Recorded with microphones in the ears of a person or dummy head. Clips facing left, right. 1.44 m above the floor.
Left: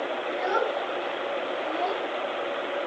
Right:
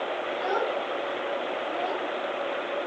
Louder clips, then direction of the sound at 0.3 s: Left 2 dB; 30° left (ahead or behind).